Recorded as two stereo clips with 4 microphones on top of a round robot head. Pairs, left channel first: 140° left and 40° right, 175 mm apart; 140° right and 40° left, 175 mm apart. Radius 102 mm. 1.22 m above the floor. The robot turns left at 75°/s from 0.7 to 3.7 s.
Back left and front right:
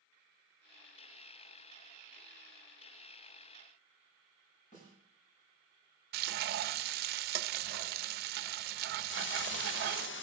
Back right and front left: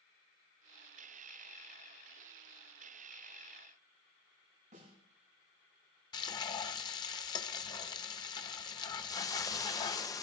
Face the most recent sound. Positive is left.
turn(degrees=150)